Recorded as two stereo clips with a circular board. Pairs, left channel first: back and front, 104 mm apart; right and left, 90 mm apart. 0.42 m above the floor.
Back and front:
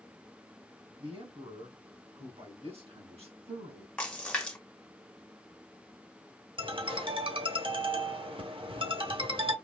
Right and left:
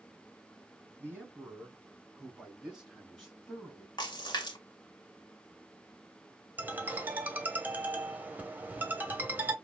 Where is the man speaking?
20° left, 4 m; by 3.9 s 5° right, 3 m.